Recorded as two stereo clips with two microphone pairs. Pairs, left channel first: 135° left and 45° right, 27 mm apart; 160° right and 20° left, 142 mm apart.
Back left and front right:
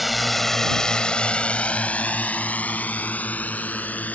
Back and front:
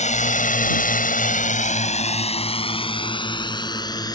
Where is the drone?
130° right; by 4.2 s 135° left.